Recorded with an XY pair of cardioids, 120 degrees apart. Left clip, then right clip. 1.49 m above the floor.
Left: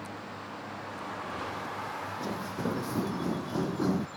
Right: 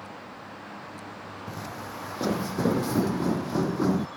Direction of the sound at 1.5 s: 60° right.